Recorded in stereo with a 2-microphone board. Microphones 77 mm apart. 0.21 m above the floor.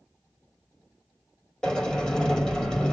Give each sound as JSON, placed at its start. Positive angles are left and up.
{"t": 1.6, "sound": "a sliding door", "side_deg": 10, "distance_m": 5.5}